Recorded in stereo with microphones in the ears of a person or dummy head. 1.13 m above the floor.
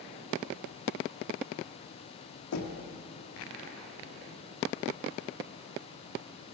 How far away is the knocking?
About 1.5 m.